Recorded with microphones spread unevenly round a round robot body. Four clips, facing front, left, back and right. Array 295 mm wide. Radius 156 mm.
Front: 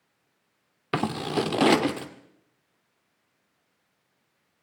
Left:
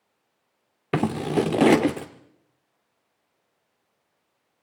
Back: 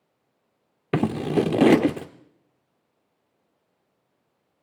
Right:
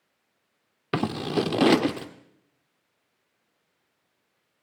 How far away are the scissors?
About 0.6 m.